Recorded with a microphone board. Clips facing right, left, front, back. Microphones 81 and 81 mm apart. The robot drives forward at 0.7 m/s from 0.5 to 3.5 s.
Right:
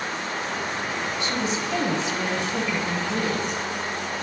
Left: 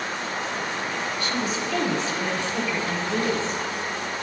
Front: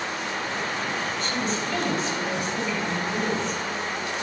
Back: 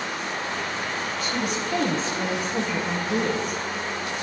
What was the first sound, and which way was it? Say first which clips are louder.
A woman speaking: right 1 dB, even; 100° right.